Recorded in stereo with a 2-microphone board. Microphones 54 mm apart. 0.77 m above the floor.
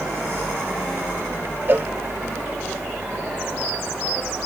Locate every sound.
1.7 s a cowbell: 40° right (ahead or behind)